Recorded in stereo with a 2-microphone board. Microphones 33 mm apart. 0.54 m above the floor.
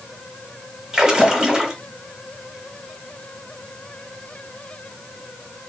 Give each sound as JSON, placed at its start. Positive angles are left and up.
{"t": 0.9, "sound": "a splash", "side_deg": -20, "distance_m": 0.8}